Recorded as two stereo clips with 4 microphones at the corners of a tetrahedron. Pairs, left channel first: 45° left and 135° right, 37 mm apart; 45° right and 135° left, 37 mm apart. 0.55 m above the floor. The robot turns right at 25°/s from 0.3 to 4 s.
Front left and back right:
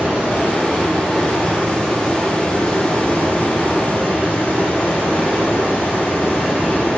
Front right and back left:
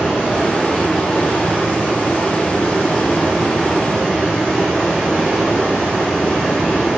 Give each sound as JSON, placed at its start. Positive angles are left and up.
{"t": 0.0, "sound": "running water", "azimuth_deg": -90, "distance_m": 1.7}